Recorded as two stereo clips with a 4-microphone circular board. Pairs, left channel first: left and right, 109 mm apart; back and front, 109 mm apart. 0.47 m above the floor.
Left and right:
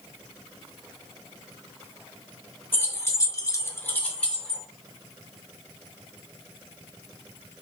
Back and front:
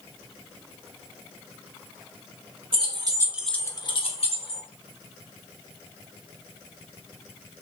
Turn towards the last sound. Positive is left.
turn(degrees=175)